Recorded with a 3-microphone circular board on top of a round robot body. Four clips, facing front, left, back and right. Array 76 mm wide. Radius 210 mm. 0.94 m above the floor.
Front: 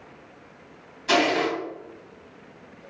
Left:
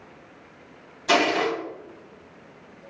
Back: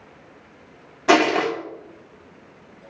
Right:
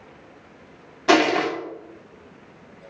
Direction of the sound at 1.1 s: 150° right.